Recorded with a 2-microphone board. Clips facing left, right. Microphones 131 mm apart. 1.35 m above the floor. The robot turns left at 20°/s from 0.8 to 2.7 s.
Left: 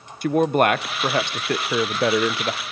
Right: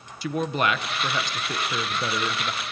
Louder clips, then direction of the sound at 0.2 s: Left 7 dB; 125° left.